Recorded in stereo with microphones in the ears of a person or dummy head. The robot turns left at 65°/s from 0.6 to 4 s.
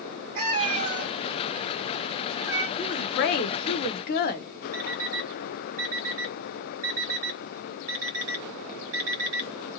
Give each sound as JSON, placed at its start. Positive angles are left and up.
{"t": 0.3, "sound": "a cat meowing", "side_deg": -45, "distance_m": 1.5}
{"t": 2.8, "sound": "a woman speaking", "azimuth_deg": 140, "distance_m": 0.7}
{"t": 4.7, "sound": "an alarm clock", "side_deg": -50, "distance_m": 1.6}